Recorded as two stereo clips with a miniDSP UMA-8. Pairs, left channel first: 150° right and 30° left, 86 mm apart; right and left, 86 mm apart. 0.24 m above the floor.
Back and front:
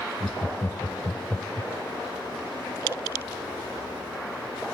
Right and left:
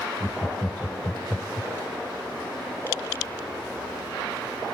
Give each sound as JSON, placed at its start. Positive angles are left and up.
{"t": 0.2, "sound": "laughter", "azimuth_deg": -125, "distance_m": 1.1}